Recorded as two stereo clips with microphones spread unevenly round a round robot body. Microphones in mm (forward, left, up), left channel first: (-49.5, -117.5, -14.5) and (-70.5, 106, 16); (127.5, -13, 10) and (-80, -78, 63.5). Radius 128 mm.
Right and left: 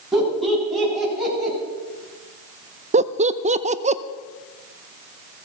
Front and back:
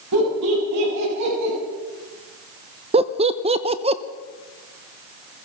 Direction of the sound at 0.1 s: 175° right.